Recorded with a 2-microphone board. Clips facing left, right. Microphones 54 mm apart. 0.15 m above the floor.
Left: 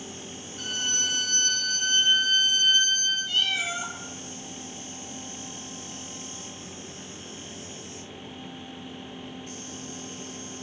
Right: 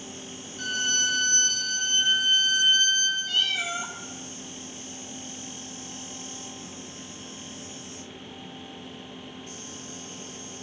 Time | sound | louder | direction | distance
0.6 | a violin | right 3 dB | 65° left (ahead or behind) | 3.5 m
3.3 | a cat meowing | even | centre (ahead or behind) | 1.5 m